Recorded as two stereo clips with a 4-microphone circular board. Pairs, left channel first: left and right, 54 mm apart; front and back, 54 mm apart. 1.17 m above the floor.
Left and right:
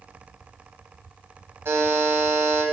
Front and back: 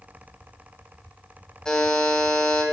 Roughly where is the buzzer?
Right.